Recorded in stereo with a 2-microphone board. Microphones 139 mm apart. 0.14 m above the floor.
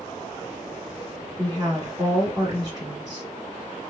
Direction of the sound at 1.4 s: 25° right (ahead or behind).